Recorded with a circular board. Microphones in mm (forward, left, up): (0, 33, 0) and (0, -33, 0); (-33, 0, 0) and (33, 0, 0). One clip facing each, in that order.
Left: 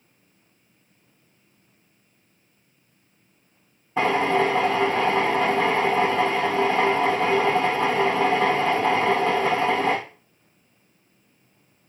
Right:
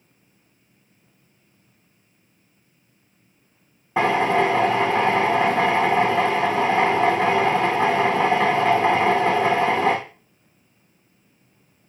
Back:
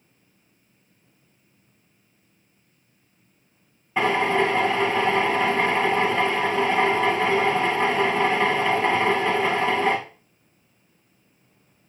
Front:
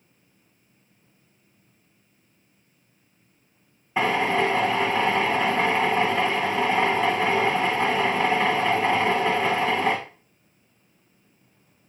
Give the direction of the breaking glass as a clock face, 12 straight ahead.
I don't hear breaking glass.